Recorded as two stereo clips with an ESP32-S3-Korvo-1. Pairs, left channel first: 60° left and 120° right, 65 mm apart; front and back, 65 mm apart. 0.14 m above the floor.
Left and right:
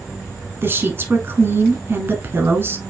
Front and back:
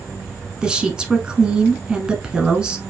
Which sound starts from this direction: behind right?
A woman speaking, at 0.6 s.